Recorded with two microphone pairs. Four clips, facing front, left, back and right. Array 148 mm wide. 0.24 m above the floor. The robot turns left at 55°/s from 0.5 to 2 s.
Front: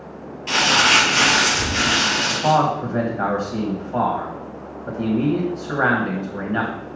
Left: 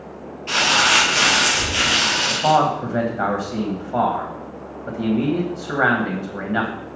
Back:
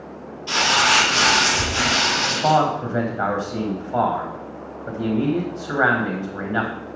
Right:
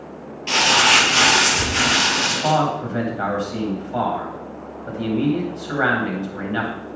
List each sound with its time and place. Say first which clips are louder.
0.5 s crumpling: right 1 dB, front 1 dB; 60° right, 2.5 m; by 2.5 s 145° right, 2.5 m
2.3 s a man speaking: left 4 dB, even; 130° left, 1.2 m